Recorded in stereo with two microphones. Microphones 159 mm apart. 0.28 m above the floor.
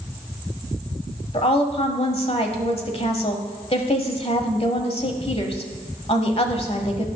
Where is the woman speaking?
40° left (ahead or behind), 1.2 m.